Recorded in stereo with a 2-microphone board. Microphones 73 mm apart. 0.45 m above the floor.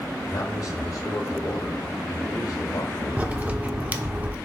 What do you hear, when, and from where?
0.3 s a man speaking: 50° left (ahead or behind), 1.4 m
3.2 s a crack: 20° right (ahead or behind), 0.7 m